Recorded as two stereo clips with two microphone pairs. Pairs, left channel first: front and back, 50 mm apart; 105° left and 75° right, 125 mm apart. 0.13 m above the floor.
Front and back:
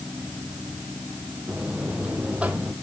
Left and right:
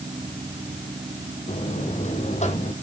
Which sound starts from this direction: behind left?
A buzzer, at 1.5 s.